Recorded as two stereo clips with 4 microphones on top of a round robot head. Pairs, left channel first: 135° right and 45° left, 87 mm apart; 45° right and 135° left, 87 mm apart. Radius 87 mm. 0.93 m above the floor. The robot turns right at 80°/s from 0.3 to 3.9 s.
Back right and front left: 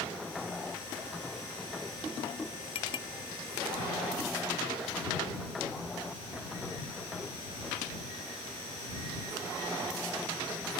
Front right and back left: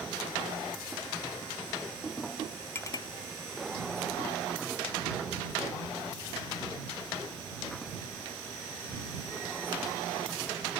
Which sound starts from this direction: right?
A clink, at 2.8 s.